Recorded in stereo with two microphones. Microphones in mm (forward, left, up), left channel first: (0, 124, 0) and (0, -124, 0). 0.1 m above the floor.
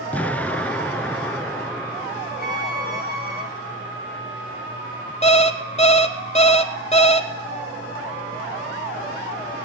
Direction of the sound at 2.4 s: 40° right (ahead or behind).